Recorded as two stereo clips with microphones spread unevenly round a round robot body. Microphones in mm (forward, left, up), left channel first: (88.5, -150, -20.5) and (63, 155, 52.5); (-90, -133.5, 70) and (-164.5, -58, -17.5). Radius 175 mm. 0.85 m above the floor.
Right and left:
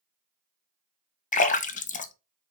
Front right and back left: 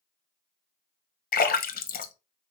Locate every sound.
1.3 s a splash: 45° right, 0.7 m